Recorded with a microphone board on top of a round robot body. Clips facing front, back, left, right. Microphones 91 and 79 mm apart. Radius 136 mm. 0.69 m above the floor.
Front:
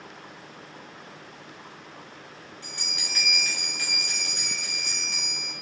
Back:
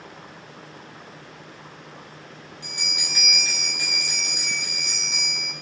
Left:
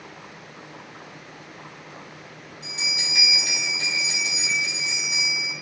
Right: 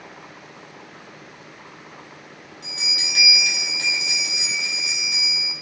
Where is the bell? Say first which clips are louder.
Back 4 dB, left 1 dB; 110° right, 2.5 m.